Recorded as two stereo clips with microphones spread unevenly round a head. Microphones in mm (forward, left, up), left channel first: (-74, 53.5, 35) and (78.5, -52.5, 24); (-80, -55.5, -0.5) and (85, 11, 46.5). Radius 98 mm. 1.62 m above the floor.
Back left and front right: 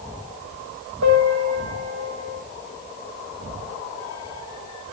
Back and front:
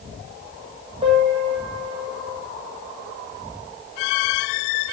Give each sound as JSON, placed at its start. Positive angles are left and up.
{"t": 1.0, "sound": "a piano", "azimuth_deg": -40, "distance_m": 7.0}